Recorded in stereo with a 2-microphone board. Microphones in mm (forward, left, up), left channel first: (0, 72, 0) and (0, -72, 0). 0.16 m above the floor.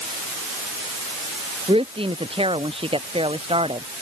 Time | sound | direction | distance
1.7 | a woman speaking | 40° right (ahead or behind) | ?